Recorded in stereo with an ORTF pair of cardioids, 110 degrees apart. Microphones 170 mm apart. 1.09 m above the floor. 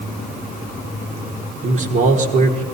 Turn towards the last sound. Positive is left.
turn(degrees=-50)